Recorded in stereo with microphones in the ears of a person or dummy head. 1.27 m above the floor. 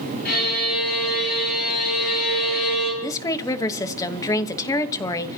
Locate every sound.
0.2 s a violin: 50° left (ahead or behind), 9 m
3.0 s a woman speaking: 20° left (ahead or behind), 1.3 m